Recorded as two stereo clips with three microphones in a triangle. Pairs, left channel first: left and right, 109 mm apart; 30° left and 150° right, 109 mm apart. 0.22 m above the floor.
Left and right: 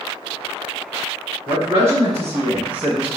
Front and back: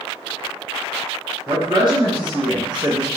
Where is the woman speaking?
135° right, 1.8 m; by 3.1 s 170° right, 1.6 m.